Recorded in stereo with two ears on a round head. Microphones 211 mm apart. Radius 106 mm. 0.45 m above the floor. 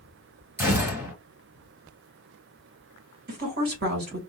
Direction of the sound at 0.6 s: 10° right (ahead or behind).